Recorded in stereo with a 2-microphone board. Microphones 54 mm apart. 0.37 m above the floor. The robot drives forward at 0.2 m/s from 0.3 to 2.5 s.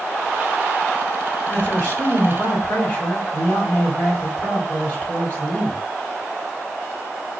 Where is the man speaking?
25° left (ahead or behind), 1.7 m.